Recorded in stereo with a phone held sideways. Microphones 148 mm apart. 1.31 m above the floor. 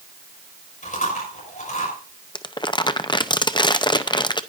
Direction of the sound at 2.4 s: 30° left (ahead or behind).